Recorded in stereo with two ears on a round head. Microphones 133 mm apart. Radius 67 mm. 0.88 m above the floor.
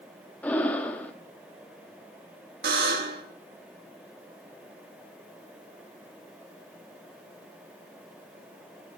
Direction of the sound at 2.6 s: 70° right (ahead or behind).